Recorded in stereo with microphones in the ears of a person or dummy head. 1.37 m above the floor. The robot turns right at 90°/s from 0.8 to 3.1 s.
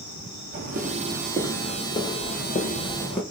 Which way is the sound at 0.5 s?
50° right (ahead or behind).